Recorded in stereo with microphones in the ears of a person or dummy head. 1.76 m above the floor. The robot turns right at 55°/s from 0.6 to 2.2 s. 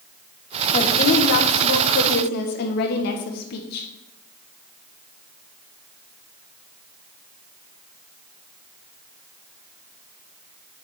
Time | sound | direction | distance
0.7 | a woman speaking | 35° left | 1.2 m